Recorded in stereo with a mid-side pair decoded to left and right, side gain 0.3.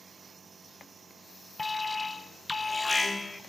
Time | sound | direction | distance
1.6 | an alarm | 40° left | 1.1 m